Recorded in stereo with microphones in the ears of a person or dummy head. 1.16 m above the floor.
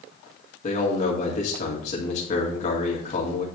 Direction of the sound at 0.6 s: 35° left (ahead or behind).